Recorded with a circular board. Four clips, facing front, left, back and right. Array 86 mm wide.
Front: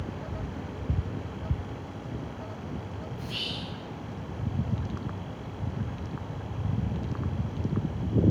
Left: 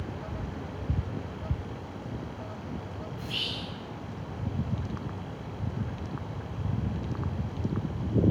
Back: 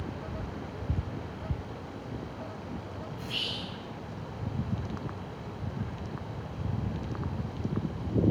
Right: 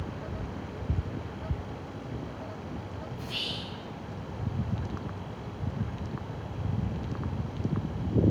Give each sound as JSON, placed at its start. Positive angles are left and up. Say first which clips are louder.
{"t": 3.2, "sound": "whispering", "louder": "left 1 dB, front 1 dB", "azimuth_deg": 120, "distance_m": 1.9}